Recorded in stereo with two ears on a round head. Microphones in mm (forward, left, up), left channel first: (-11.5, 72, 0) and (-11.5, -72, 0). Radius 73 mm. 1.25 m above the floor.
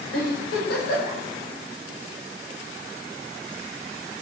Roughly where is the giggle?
Left.